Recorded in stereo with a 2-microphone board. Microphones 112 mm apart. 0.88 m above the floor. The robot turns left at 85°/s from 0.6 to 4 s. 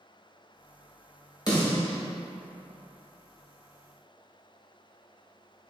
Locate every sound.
1.5 s a snare drum: 35° left (ahead or behind), 1.5 m; by 2.0 s 75° left (ahead or behind), 1.5 m